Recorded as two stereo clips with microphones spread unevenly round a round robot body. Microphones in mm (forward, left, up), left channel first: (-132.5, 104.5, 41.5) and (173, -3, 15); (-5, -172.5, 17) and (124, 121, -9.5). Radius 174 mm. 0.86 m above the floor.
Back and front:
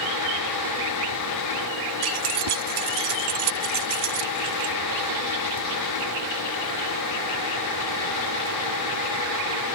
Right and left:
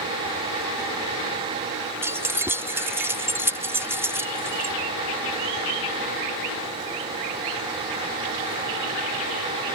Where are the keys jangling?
15° right.